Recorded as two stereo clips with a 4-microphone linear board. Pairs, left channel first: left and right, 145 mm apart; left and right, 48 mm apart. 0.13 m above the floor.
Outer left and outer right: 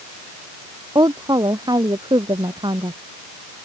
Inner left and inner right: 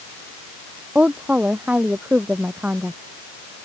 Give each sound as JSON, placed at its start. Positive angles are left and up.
{"t": 0.9, "sound": "a woman speaking", "side_deg": -25}